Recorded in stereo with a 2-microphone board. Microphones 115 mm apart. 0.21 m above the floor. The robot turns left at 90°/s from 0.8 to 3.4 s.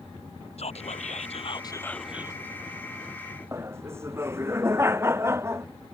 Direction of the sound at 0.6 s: 115° left.